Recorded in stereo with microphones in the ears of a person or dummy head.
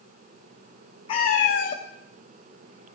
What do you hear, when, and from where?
1.1 s a cat meowing: 25° left (ahead or behind), 0.7 m; by 3.0 s 45° left (ahead or behind), 1.6 m